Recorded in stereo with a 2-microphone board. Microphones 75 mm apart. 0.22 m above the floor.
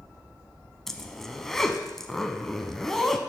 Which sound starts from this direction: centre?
A zipper, at 0.9 s.